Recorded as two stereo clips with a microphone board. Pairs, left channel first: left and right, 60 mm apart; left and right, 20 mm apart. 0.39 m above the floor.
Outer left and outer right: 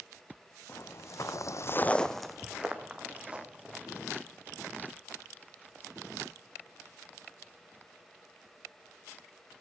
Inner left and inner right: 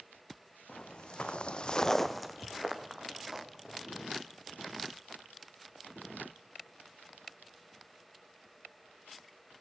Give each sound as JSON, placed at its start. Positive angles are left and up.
{"t": 0.7, "sound": "footsteps", "side_deg": 45, "distance_m": 1.5}